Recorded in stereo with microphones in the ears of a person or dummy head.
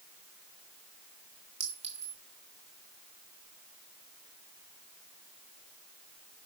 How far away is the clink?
About 2.5 m.